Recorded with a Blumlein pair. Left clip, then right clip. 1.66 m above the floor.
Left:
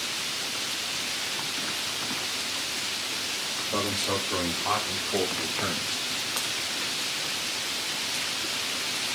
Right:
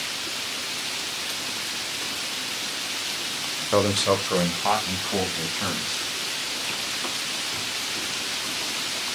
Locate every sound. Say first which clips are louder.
3.7 s a man speaking: right 8 dB; 55° right, 1.1 m; by 6.0 s 30° right, 4.5 m